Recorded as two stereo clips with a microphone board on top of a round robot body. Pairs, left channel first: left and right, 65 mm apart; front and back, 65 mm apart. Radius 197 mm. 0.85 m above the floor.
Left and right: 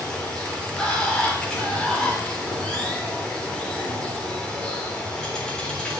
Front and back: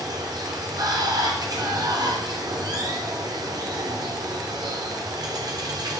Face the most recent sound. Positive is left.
turn(degrees=165)